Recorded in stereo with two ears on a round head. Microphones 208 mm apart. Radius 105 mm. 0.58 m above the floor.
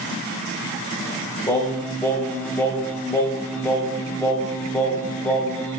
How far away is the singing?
About 0.5 m.